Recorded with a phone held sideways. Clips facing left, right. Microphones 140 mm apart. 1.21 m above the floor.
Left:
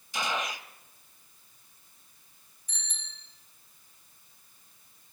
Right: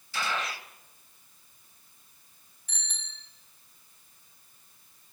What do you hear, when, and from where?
0.1 s a gunshot: 20° left (ahead or behind), 1.3 m
2.7 s a bicycle bell: 70° right (ahead or behind), 6.5 m